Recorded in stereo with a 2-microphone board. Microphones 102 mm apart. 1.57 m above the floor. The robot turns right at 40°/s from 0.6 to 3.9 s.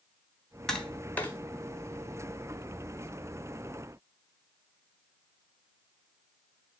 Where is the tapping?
5° left (ahead or behind), 1.5 m; by 1.4 s 20° left (ahead or behind), 1.5 m.